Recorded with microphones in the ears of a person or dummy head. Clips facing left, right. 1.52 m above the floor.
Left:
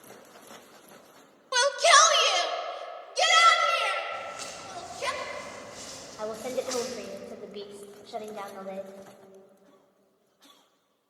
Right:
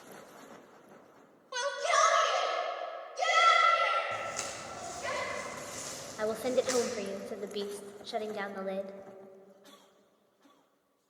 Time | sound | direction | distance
1.5 | a shout | 70° left (ahead or behind) | 0.7 m
4.1 | footsteps | 50° right (ahead or behind) | 3.5 m
6.2 | a woman speaking | 15° right (ahead or behind) | 0.7 m